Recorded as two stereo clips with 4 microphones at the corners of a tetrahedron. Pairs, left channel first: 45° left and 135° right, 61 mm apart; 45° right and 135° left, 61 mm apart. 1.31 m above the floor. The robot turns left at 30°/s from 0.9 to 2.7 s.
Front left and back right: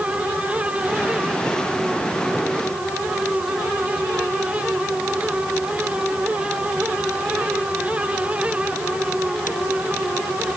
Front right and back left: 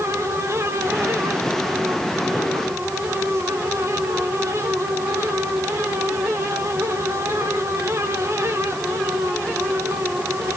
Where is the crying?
I don't hear crying.